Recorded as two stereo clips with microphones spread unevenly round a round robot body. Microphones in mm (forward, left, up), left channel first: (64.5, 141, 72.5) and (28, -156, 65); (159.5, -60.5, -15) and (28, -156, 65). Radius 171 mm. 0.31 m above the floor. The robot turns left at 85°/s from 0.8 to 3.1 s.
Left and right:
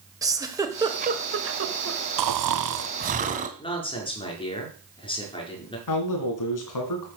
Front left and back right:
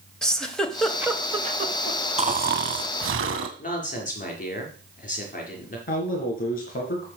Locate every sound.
0.2 s a giggle: 25° right, 1.8 m; by 2.0 s 125° right, 1.8 m
2.2 s snoring: 85° right, 1.2 m; by 3.5 s 165° right, 1.2 m
3.6 s a man speaking: 10° left, 5 m
5.9 s a man speaking: 65° left, 3.5 m